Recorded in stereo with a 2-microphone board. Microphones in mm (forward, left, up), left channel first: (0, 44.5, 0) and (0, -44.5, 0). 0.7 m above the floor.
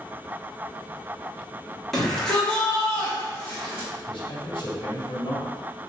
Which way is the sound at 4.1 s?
70° left (ahead or behind).